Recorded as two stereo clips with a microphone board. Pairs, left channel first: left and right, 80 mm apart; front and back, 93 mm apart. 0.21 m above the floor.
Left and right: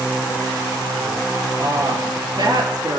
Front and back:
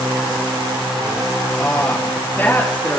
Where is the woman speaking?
70° right, 3.5 m.